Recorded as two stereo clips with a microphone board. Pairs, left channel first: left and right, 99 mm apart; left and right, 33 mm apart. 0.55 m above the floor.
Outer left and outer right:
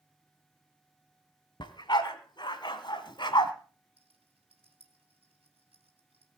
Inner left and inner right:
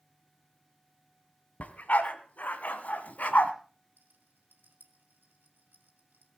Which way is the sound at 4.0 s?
80° right.